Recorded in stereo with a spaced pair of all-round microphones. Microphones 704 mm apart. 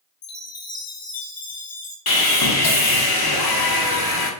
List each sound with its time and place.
0.2 s a chime: 60° left (ahead or behind), 0.9 m
2.1 s sawing: 30° left (ahead or behind), 0.8 m